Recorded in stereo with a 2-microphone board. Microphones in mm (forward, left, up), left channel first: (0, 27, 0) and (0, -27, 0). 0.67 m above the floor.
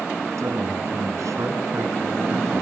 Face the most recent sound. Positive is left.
turn(degrees=-70)  # may be behind; listen again after turning